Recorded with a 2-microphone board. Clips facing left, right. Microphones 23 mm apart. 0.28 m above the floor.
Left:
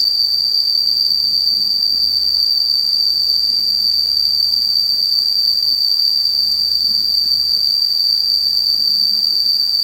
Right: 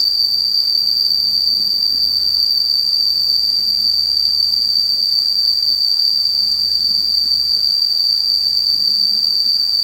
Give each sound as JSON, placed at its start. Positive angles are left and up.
{"t": 0.0, "sound": "an insect", "side_deg": 0, "distance_m": 1.0}